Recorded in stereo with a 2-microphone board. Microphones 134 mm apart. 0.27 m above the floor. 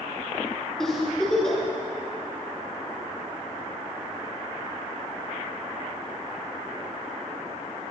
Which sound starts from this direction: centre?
A giggle, at 0.8 s.